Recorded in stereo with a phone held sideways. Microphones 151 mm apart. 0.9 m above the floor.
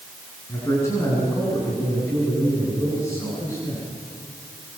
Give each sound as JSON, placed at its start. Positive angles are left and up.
{"t": 0.5, "sound": "a man speaking", "side_deg": 20, "distance_m": 9.0}